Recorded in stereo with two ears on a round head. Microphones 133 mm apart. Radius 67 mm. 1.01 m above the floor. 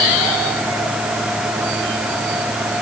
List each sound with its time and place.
Only background noise.